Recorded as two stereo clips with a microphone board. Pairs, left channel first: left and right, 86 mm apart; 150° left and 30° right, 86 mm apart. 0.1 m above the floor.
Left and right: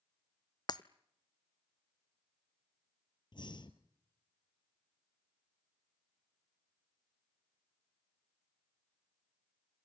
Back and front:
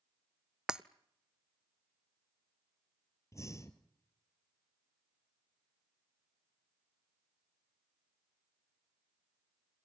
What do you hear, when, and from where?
0.7 s breaking glass: 50° left, 0.6 m
3.3 s breathing: 100° left, 1.5 m